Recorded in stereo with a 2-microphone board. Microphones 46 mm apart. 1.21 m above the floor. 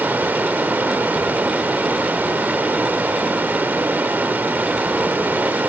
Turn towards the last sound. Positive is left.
turn(degrees=-45)  # may be behind; listen again after turning